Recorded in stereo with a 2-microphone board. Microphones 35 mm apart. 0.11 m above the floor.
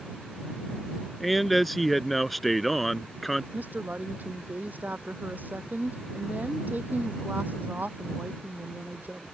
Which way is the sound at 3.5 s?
60° right (ahead or behind).